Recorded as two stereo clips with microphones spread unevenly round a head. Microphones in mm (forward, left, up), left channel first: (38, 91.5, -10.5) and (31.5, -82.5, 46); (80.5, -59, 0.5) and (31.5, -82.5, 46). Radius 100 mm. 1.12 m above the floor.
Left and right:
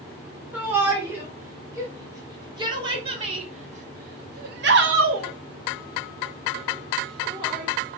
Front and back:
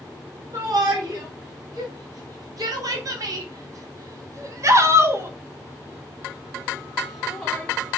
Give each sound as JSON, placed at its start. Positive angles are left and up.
{"t": 0.5, "sound": "a shout", "azimuth_deg": -175, "distance_m": 3.0}